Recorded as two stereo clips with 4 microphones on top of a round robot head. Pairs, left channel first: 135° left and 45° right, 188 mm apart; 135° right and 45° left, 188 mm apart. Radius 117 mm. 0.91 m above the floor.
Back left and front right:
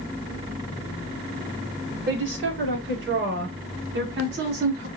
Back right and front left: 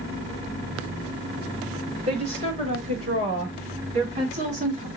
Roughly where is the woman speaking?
Ahead.